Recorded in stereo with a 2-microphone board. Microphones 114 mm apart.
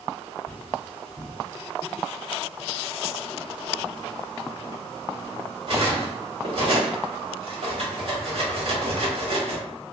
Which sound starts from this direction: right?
Cutlery clinking, at 0.5 s.